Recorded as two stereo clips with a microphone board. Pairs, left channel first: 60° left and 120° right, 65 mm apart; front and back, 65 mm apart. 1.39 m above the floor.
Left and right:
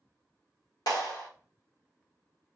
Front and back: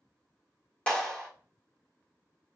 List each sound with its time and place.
0.9 s a clap: 70° left, 1.2 m